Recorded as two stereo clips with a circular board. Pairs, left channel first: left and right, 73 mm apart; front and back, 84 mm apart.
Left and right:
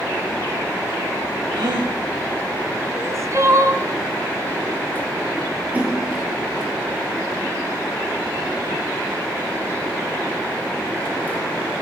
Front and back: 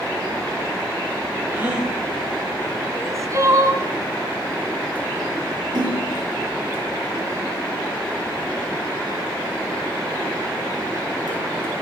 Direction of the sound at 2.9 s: 135° right.